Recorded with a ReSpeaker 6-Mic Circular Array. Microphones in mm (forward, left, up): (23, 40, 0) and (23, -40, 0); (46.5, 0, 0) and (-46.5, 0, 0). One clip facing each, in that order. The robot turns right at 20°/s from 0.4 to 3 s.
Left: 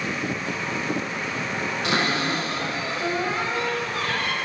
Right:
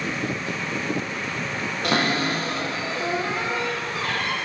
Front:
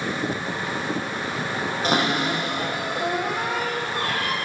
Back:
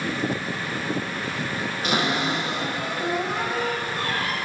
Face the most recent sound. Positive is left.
turn(degrees=-25)